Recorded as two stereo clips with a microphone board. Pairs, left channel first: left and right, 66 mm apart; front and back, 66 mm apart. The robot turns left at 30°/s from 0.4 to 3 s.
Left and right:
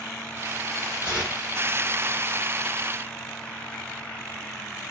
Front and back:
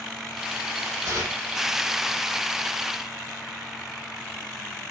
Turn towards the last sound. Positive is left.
turn(degrees=85)